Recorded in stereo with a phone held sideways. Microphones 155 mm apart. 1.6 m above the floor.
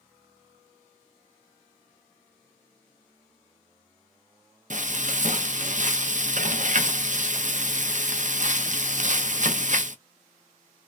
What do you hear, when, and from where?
4.7 s frying: 55° right (ahead or behind), 0.6 m